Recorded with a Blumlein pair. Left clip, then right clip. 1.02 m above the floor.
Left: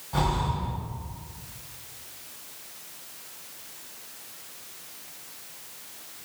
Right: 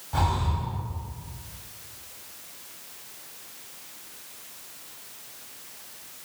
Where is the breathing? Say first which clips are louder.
Even; 5° right, 1.6 m.